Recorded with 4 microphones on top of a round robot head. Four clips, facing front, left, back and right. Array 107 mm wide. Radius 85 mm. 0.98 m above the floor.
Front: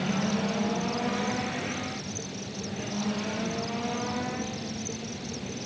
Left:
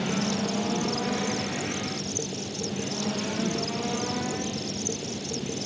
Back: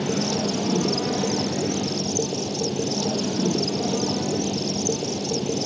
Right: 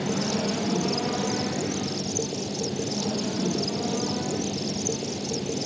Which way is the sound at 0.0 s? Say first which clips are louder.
Right 1 dB, back 4 dB; 170° right.